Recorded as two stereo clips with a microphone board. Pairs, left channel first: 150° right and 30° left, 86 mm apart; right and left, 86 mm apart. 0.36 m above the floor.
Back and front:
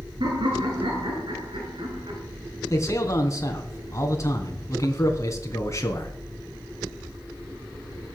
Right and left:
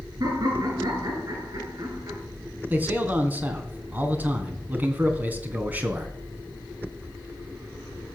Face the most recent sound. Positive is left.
turn(degrees=160)